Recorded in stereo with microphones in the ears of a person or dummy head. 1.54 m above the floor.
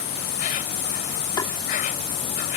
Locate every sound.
0.0 s an insect: 45° left (ahead or behind)
1.4 s tapping: 20° left (ahead or behind)